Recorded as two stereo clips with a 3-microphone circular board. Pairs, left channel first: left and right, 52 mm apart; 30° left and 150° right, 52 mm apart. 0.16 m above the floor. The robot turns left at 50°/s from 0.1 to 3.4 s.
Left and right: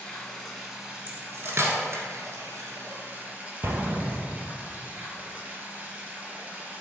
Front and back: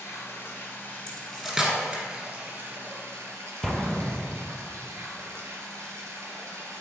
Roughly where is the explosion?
Ahead right.